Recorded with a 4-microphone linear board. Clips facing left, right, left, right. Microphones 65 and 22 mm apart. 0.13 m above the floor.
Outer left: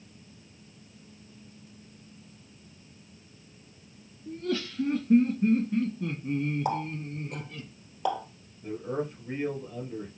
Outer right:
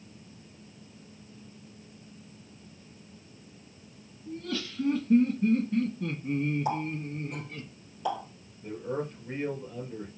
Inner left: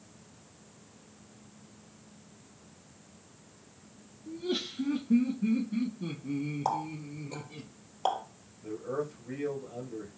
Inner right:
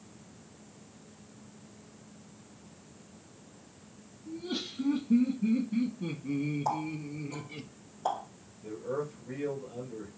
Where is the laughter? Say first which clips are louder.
Outer left 4 dB, inner left 3 dB; 35° left (ahead or behind), 1.8 m; by 7.7 s 30° right (ahead or behind), 1.5 m.